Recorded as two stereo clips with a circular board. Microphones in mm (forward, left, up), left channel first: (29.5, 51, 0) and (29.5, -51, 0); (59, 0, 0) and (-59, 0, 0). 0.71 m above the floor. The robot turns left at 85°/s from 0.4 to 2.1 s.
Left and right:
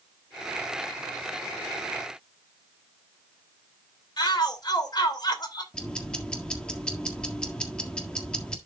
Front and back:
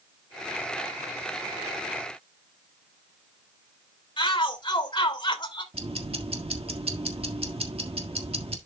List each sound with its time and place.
4.2 s a shout: 45° left, 2.5 m
5.7 s ticking: 170° left, 1.5 m